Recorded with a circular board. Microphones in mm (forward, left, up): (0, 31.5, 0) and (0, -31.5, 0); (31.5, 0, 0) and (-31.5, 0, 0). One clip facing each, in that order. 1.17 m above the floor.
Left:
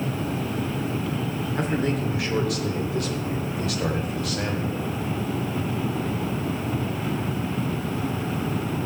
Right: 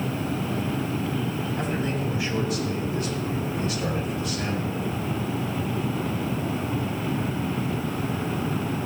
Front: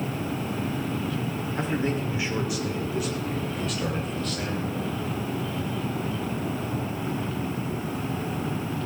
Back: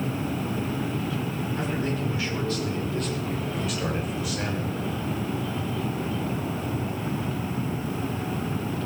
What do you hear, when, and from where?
1.6 s a man speaking: 60° left, 3.5 m; by 5.0 s 110° left, 4.5 m